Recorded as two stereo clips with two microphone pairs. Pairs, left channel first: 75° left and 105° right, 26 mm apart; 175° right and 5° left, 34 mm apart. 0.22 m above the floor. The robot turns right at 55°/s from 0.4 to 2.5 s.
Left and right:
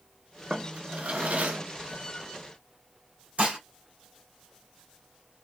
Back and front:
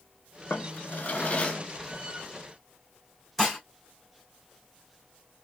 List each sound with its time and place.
0.5 s a drawer: 170° right, 0.6 m; by 1.6 s 110° right, 0.6 m
3.4 s dishes clattering: 90° right, 1.5 m